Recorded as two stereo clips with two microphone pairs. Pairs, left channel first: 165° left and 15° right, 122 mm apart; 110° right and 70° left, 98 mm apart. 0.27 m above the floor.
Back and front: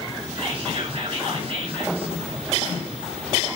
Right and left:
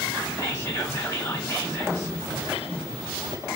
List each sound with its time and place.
0.4 s whispering: 45° right, 3 m